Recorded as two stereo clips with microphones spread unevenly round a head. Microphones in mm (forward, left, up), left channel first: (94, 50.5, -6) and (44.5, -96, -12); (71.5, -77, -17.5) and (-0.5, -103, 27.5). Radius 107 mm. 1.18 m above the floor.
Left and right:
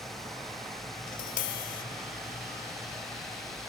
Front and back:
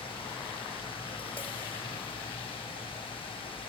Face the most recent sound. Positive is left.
turn(degrees=95)